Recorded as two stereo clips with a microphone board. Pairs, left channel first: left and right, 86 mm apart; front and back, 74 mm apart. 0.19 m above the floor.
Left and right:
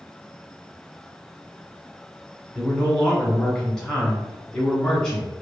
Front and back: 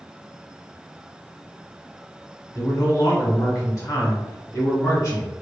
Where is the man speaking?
15° left, 1.6 m.